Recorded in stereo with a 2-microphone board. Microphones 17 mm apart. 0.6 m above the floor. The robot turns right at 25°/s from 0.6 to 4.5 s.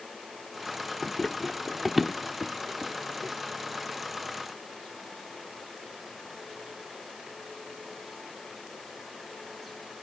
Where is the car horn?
No car horn in this recording.